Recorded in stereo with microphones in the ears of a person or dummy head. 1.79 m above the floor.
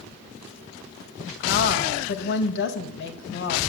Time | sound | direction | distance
1.4 | a woman speaking | 60° left (ahead or behind) | 1.8 m